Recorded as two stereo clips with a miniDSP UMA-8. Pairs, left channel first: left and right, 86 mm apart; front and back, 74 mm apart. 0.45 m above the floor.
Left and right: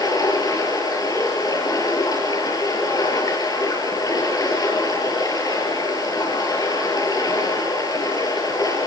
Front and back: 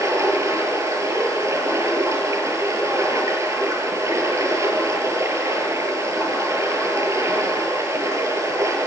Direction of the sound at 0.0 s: 135° left.